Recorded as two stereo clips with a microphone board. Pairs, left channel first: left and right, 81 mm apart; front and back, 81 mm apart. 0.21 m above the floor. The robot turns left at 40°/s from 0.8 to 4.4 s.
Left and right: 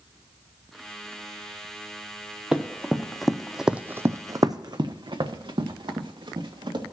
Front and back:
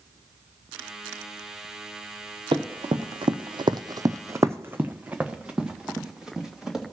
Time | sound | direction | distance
2.5 | running footsteps | 170° right | 1.2 m